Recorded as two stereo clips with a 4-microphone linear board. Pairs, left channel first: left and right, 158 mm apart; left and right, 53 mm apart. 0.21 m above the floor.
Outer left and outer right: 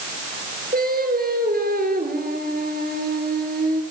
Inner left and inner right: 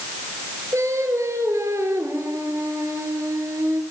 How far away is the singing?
About 3 m.